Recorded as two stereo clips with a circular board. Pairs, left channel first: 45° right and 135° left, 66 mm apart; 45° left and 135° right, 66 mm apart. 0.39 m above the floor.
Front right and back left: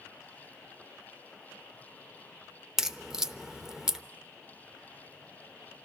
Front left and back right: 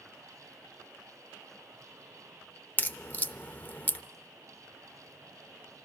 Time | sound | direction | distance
2.8 | a crack | 65° left | 0.6 m